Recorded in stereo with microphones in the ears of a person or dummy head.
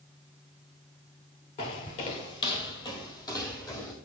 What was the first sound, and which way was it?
Footsteps, 20° left (ahead or behind).